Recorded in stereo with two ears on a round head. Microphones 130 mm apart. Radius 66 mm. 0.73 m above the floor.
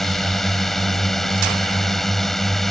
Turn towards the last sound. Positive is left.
turn(degrees=0)  # may be behind; listen again after turning